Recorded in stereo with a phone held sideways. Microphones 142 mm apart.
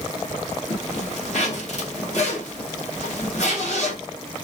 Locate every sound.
0.7 s a zipper: 55° left (ahead or behind), 2.0 m